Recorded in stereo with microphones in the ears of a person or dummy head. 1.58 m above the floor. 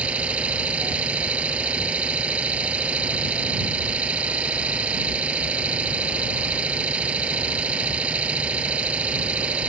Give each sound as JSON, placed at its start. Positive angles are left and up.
{"t": 0.0, "sound": "an engine running", "side_deg": -5}